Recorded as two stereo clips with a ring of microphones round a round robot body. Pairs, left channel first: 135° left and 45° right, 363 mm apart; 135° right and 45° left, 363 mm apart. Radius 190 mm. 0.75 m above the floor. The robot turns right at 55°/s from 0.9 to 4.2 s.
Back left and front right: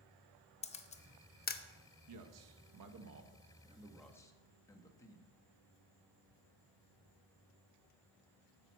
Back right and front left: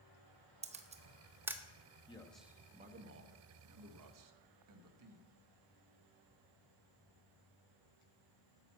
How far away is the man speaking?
About 1.1 m.